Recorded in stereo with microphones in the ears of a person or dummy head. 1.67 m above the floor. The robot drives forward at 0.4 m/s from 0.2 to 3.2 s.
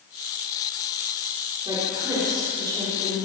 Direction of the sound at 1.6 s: 20° right (ahead or behind).